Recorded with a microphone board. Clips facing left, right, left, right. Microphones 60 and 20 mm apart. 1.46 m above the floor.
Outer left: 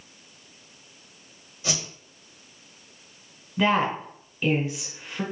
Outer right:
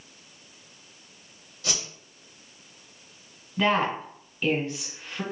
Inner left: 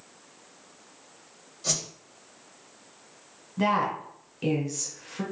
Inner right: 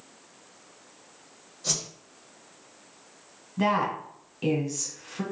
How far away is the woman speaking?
About 0.9 m.